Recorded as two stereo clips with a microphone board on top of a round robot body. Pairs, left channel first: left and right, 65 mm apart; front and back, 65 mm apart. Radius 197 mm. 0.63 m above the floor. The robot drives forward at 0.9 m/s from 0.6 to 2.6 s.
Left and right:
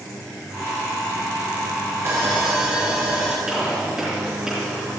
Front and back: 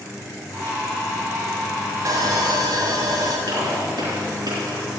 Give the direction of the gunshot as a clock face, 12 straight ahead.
6 o'clock.